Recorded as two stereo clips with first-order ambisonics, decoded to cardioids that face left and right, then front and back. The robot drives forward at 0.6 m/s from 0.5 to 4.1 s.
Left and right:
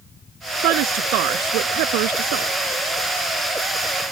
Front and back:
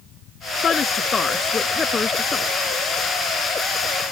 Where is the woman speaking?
70° right; by 2.6 s 75° right.